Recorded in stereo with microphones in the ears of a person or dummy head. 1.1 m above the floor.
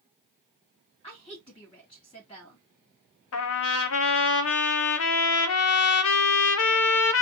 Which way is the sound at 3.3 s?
65° left (ahead or behind).